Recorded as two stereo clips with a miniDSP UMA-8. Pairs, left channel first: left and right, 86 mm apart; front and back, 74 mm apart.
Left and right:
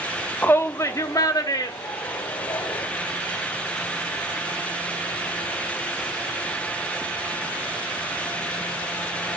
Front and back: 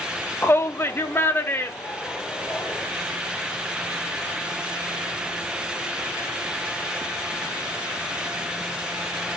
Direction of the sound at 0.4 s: 40° left.